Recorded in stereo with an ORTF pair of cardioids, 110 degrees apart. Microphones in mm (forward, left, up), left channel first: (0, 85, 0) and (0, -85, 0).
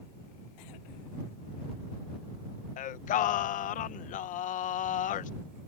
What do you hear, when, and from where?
2.8 s singing: 55° left